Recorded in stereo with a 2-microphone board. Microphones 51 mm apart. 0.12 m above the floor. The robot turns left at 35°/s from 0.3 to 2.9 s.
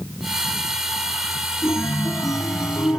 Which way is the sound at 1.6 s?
115° left.